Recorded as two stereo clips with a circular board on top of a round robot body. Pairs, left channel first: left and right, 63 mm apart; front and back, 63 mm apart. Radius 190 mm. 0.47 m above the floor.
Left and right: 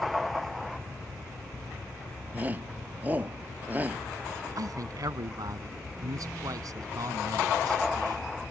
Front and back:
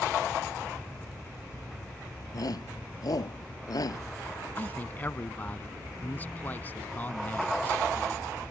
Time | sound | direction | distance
2.3 | a shout | 25° right | ?
4.6 | a man speaking | 65° right | ?